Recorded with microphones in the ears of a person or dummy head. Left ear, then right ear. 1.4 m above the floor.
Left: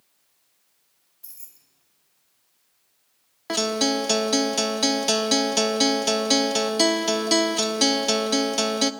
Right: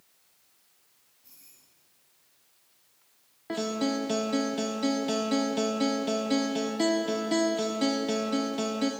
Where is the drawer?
No drawer in this recording.